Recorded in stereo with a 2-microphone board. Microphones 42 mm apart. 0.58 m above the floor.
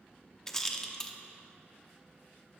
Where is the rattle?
10° left (ahead or behind), 0.8 m.